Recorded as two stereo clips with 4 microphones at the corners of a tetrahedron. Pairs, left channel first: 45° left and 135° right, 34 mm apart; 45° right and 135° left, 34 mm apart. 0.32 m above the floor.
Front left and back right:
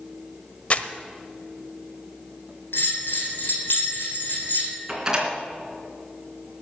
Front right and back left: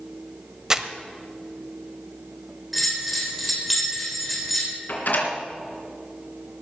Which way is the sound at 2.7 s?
45° left.